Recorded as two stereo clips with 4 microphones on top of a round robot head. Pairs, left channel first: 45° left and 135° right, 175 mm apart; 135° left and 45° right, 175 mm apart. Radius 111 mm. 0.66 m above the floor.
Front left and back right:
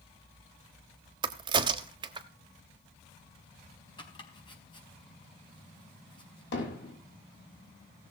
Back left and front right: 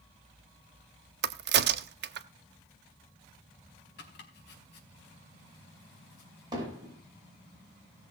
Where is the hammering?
25° left, 5.5 m.